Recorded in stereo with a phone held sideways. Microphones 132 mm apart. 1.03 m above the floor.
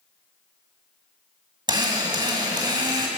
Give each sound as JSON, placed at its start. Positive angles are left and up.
{"t": 1.7, "sound": "a drill", "side_deg": -35, "distance_m": 2.5}